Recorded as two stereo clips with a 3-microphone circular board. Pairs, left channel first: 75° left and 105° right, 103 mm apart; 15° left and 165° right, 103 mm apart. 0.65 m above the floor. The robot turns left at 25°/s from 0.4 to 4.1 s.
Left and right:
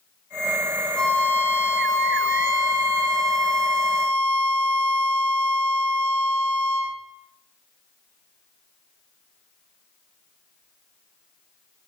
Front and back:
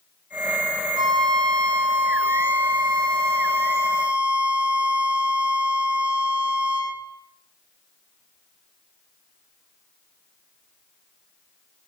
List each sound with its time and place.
1.0 s a violin: 160° left, 1.7 m; by 7.0 s 85° left, 1.7 m